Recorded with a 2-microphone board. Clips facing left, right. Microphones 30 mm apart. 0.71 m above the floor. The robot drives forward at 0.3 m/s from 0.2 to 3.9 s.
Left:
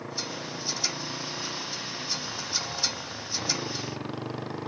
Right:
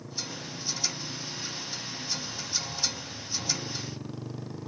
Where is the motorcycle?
50° left (ahead or behind); by 4.7 s 45° left (ahead or behind).